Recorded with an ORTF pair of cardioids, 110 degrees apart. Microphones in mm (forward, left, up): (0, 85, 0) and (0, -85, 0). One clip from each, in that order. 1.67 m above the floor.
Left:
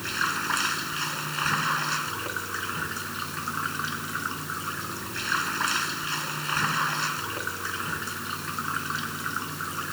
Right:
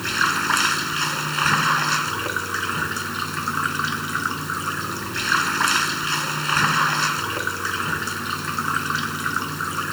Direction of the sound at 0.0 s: 35° right.